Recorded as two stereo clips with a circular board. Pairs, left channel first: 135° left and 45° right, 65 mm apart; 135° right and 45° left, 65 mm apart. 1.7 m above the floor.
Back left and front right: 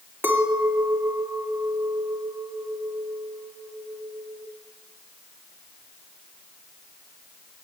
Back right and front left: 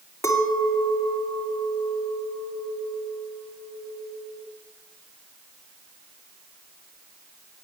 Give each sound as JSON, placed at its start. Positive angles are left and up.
{"t": 0.2, "sound": "a clink", "azimuth_deg": -95, "distance_m": 2.5}